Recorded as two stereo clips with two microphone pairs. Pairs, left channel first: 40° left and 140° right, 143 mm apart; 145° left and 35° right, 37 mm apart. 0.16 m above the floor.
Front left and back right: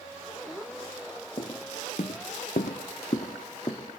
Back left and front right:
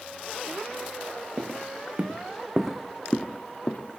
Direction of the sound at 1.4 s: 10° right.